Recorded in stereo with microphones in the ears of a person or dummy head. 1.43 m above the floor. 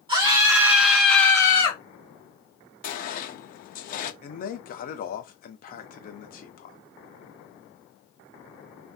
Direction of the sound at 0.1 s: 30° right (ahead or behind).